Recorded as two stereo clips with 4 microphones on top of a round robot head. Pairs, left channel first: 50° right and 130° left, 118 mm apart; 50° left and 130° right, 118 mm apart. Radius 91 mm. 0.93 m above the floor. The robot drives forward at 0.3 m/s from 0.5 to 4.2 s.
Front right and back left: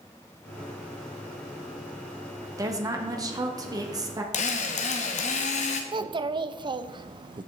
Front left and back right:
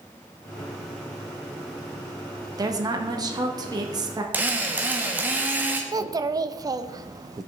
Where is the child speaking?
175° left, 0.7 m.